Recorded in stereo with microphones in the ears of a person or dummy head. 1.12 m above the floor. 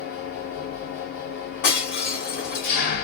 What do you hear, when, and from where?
0.0 s an engine running: 55° left (ahead or behind), 1.6 m
1.6 s breaking glass: 45° left (ahead or behind), 1.5 m